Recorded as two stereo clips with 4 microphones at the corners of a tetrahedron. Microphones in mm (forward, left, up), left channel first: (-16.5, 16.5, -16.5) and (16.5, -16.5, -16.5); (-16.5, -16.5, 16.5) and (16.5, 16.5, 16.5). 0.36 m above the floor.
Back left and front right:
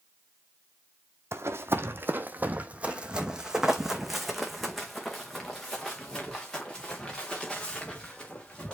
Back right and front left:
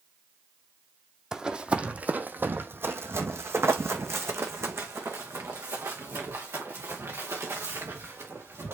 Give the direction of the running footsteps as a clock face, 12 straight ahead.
1 o'clock.